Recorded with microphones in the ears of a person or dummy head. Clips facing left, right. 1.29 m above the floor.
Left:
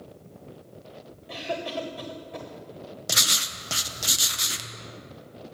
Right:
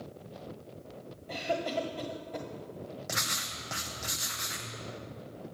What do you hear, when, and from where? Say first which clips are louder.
1.3 s a cough: even; 10° left (ahead or behind), 1.4 m
3.1 s writing: left 4 dB; 45° left (ahead or behind), 0.8 m